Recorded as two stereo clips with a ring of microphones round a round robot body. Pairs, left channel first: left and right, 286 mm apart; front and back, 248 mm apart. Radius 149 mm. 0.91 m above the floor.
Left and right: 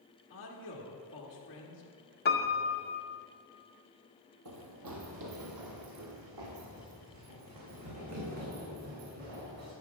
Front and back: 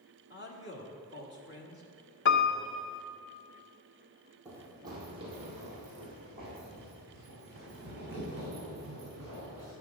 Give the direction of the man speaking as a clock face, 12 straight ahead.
11 o'clock.